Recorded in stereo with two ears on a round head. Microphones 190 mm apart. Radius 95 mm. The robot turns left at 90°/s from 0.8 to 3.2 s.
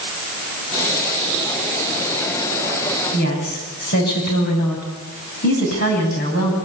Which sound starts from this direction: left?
A woman speaking, at 3.1 s.